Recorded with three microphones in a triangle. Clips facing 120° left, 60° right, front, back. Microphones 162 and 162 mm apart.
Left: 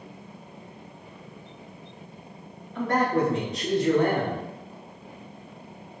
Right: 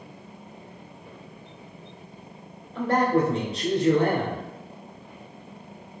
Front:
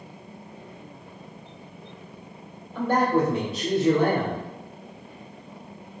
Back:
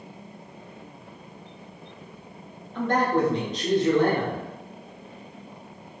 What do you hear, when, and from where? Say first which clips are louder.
2.8 s a man speaking: right 2 dB, front 1 dB; 75° right, 1.2 m